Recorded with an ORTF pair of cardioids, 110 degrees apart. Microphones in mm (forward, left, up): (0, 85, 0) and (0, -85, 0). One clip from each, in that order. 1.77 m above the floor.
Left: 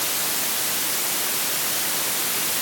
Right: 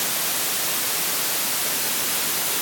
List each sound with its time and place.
Only background noise.